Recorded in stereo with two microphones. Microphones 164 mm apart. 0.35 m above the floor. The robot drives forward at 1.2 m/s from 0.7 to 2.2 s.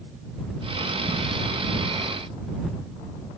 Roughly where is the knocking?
No knocking in this recording.